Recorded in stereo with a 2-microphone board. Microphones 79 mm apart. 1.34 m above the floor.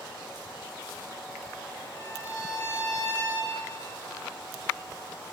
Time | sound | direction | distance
1.9 | a violin | 35° left (ahead or behind) | 2 m